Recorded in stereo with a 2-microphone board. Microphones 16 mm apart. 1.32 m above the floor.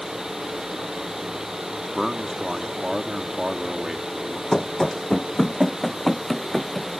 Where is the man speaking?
30° right (ahead or behind).